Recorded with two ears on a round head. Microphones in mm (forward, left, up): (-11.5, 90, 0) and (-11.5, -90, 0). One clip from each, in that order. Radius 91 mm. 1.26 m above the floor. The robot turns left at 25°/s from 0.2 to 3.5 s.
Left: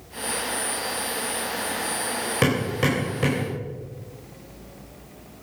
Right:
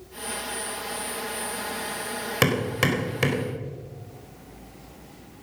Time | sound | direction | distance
2.4 | hammering | 30° right (ahead or behind) | 4.5 m